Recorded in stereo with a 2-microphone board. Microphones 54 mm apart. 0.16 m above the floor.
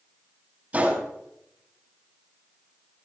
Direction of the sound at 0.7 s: 25° right (ahead or behind).